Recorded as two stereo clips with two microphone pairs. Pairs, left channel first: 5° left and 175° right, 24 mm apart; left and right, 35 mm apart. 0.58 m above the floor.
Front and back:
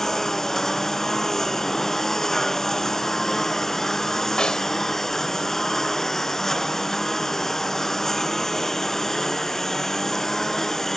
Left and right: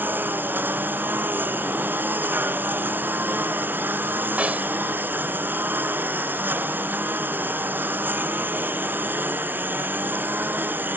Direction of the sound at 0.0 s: 70° right.